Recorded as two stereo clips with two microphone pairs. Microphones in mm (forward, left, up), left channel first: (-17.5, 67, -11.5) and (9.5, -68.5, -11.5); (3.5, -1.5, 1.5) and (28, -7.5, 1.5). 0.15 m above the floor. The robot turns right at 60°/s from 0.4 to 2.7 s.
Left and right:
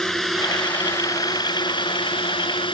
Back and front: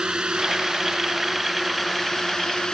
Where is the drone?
15° left; by 2.7 s 120° left.